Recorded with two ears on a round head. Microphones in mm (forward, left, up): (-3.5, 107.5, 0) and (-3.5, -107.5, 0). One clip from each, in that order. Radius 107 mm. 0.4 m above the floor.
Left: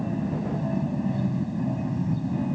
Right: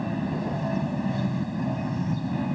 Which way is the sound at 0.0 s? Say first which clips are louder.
Right 1 dB; 50° right (ahead or behind).